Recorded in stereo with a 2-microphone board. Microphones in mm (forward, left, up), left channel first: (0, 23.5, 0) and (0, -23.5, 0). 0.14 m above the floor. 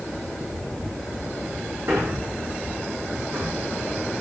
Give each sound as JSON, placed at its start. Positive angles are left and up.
{"t": 1.9, "sound": "a man speaking", "side_deg": -75, "distance_m": 9.5}